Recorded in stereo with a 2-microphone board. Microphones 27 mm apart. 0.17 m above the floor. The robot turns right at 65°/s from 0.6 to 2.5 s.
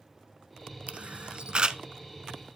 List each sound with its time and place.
0.9 s a camera shutter: 50° right (ahead or behind), 0.7 m; by 1.8 s 30° right (ahead or behind), 0.7 m